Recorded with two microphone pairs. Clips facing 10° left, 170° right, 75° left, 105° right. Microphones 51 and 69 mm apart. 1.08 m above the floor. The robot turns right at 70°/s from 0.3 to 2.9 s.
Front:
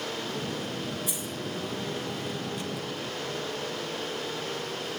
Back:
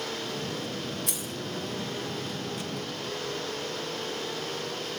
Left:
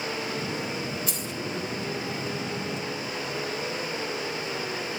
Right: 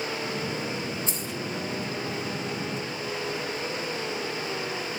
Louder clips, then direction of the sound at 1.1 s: Front 1 dB, even; 165° right.